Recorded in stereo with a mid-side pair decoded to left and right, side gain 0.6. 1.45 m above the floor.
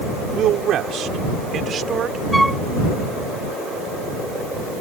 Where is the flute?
5° right.